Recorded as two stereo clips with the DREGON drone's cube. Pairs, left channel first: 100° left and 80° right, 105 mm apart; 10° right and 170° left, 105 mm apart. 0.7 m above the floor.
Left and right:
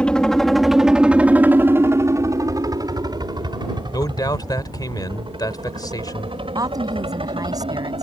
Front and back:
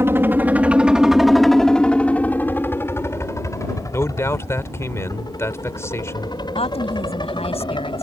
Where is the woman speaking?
25° right.